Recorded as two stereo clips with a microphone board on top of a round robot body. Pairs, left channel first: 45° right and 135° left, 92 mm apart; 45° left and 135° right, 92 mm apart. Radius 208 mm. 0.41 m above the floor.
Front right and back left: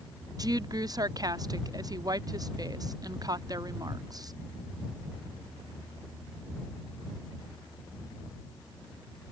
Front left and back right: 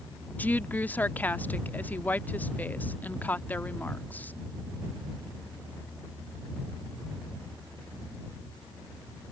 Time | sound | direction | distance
0.4 | a woman speaking | 110° left | ?